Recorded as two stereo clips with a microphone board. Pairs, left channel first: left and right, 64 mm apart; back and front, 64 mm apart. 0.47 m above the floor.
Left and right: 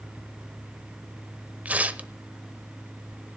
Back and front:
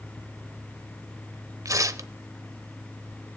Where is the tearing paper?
25° right, 0.8 m.